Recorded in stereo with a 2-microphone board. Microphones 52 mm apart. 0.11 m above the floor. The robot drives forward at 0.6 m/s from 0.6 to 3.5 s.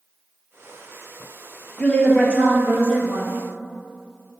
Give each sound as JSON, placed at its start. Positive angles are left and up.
{"t": 1.8, "sound": "a woman speaking", "side_deg": 25, "distance_m": 2.0}